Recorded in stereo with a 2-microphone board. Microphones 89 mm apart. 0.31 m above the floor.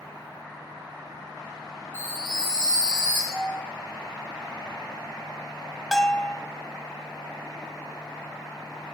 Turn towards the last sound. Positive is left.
turn(degrees=5)  # may be behind; listen again after turning